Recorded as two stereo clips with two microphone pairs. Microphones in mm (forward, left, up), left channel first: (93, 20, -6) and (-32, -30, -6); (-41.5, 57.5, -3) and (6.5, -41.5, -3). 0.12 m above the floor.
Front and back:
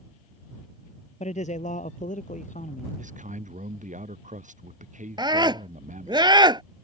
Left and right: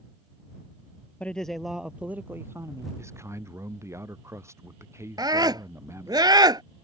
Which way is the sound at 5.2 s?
110° right.